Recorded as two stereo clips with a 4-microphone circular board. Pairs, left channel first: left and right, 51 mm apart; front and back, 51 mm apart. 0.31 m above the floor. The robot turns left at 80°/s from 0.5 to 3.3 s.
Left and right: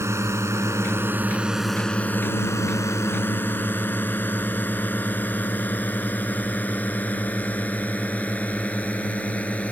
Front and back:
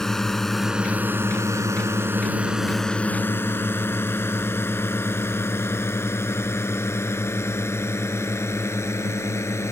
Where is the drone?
80° right; by 9.7 s 25° left.